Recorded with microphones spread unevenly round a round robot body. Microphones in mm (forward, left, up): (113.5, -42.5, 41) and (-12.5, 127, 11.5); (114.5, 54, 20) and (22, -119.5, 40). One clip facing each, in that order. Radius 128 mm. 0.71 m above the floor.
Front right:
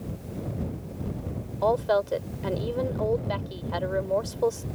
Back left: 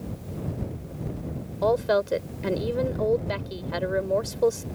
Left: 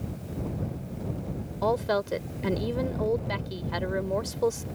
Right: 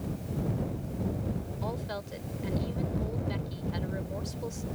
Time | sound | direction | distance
1.6 | a woman speaking | 65° left | ?